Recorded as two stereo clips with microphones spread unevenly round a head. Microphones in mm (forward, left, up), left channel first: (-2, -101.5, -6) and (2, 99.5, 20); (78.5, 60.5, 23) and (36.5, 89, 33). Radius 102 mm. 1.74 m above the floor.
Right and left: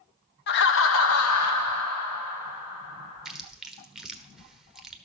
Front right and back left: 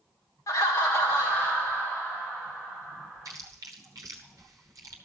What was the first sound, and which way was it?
Laughter, 55° right.